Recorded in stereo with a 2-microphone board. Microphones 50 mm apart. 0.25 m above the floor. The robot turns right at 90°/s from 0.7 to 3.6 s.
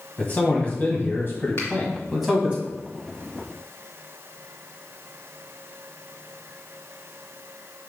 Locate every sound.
0.2 s a man speaking: 50° left, 1.4 m; by 2.6 s 140° right, 1.4 m
1.6 s a finger snap: 55° left (ahead or behind), 2 m; by 1.7 s 60° left (ahead or behind), 2 m